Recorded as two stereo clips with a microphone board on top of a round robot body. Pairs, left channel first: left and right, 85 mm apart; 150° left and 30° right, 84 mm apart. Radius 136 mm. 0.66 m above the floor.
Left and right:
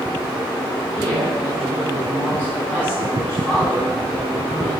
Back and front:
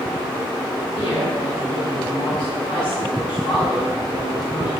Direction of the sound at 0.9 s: 175° right.